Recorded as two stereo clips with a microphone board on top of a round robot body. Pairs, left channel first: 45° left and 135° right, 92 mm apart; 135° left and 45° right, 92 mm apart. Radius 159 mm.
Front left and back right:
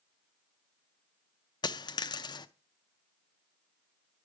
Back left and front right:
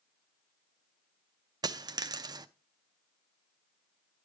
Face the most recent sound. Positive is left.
turn(degrees=0)